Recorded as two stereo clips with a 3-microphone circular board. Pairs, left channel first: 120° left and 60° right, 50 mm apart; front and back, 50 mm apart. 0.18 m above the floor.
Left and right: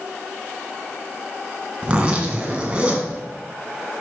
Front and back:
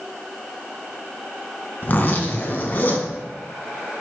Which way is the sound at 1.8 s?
10° right.